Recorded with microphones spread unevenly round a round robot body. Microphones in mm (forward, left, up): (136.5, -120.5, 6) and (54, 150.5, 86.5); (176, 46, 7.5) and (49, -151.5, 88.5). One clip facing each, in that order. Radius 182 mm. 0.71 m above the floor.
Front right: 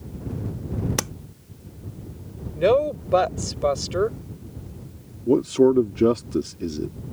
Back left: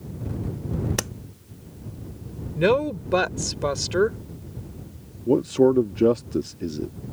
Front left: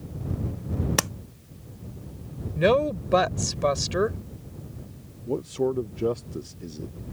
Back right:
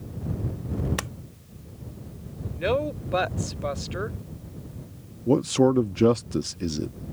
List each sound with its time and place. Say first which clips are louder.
1.0 s tapping: front right 1 dB, front left 6 dB; 15° left
2.5 s a woman speaking: front right 1 dB, front left 5 dB; 50° left
5.3 s a man speaking: front right 1 dB, back right 6 dB; 145° right